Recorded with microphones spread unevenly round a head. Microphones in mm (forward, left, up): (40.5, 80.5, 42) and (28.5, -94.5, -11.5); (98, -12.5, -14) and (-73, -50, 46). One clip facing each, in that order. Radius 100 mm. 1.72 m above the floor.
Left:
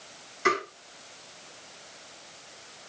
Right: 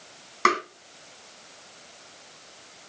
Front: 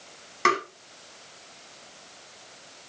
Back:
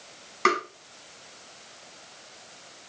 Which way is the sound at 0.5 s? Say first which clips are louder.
Right 1 dB, back 1 dB; 80° right.